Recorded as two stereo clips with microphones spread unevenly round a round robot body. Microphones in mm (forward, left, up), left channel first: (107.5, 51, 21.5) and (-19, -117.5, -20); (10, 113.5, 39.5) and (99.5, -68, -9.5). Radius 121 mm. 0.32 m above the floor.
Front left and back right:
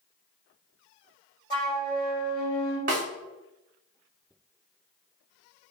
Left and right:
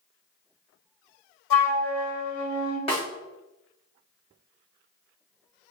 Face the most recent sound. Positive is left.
turn(degrees=-175)